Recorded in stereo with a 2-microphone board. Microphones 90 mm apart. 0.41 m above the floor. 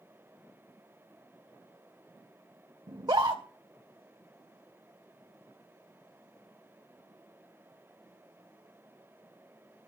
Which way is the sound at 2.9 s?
50° right (ahead or behind).